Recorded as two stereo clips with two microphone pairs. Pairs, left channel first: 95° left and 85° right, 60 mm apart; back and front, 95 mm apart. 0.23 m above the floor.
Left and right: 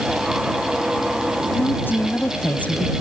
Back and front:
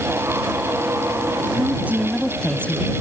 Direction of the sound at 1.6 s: 60° left.